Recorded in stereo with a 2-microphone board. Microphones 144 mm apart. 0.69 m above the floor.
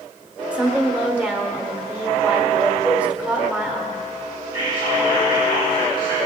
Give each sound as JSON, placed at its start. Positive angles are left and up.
{"t": 0.5, "sound": "a woman speaking", "side_deg": -10, "distance_m": 1.9}
{"t": 2.8, "sound": "a cowbell", "side_deg": -5, "distance_m": 2.0}
{"t": 4.5, "sound": "whispering", "side_deg": 35, "distance_m": 4.0}